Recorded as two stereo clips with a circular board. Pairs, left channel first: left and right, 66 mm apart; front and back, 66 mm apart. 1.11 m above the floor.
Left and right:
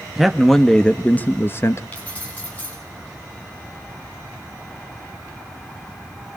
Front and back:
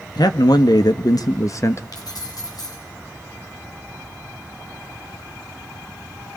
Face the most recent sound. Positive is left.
turn(degrees=20)